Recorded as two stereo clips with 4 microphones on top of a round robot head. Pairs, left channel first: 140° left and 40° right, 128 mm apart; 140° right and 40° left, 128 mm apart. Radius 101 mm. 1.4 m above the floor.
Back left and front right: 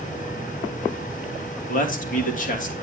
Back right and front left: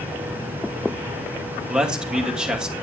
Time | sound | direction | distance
1.7 | a man speaking | 125° left | 2.5 m